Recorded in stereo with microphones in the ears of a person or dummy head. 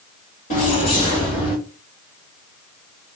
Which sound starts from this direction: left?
Keys jangling, at 0.5 s.